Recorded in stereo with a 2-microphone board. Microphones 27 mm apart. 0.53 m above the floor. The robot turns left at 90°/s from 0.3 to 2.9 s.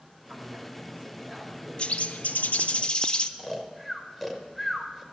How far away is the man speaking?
About 2.5 m.